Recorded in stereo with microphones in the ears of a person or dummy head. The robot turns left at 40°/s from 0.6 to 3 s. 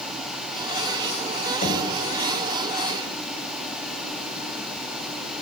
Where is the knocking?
40° left (ahead or behind), 5 m; by 1.9 s 50° left (ahead or behind), 5 m.